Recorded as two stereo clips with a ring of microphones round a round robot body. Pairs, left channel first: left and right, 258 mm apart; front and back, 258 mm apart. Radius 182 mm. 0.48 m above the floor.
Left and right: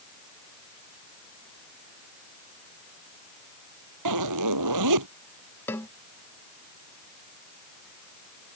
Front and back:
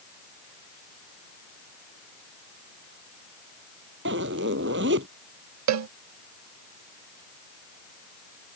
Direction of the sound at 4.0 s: 120° right.